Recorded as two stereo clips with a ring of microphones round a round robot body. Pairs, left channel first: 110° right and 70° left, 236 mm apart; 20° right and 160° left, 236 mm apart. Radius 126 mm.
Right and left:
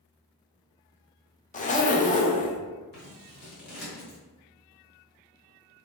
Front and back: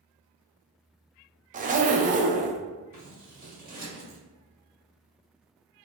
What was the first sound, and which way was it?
A zipper, 160° right.